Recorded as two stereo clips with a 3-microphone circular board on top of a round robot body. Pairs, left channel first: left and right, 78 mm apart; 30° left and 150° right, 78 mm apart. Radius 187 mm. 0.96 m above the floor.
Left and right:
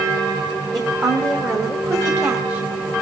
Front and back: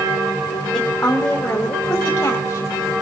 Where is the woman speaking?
50° right, 4 m; by 2.9 s 30° right, 3.5 m.